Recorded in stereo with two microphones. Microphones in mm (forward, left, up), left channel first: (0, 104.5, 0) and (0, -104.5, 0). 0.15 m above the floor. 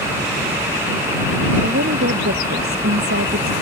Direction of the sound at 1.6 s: 80° right.